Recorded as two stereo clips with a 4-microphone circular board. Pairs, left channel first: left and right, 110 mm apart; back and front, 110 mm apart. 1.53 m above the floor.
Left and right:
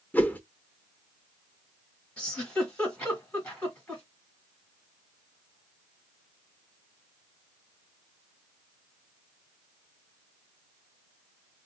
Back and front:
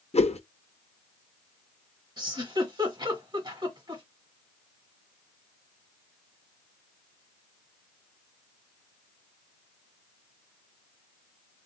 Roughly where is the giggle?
Ahead.